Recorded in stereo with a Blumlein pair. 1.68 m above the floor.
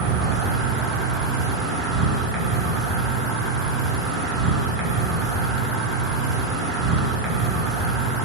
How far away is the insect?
About 0.9 m.